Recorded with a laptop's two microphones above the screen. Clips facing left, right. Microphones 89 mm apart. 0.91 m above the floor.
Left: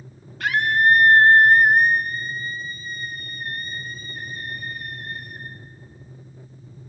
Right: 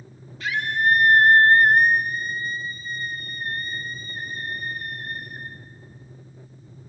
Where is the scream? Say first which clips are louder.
Left 4 dB; 65° left (ahead or behind), 1.2 m; by 5.5 s 45° right (ahead or behind), 4 m.